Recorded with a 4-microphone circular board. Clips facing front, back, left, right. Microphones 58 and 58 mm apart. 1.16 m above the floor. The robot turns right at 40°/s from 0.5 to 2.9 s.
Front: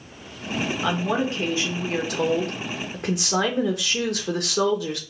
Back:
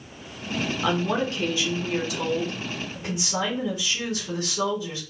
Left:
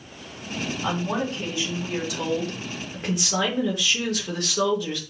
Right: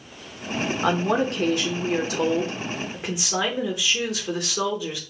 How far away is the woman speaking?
About 1.3 m.